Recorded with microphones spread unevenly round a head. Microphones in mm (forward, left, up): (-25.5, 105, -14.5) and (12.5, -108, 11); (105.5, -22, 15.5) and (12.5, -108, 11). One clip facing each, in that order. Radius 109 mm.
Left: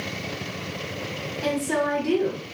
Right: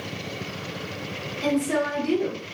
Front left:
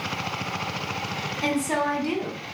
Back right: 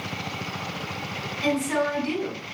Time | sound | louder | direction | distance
1.4 | a woman speaking | right 2 dB, back right 1 dB | straight ahead | 1.6 m